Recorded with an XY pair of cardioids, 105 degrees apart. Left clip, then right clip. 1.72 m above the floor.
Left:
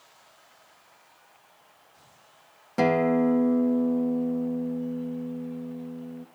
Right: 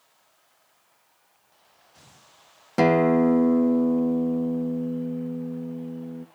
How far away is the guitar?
About 0.8 m.